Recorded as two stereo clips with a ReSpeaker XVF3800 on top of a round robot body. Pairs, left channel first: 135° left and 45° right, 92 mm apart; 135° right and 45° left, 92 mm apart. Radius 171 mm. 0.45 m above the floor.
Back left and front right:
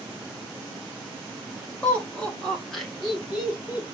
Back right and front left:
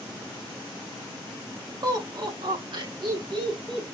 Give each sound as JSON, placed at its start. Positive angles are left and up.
{"t": 1.8, "sound": "laughter", "azimuth_deg": 65, "distance_m": 2.0}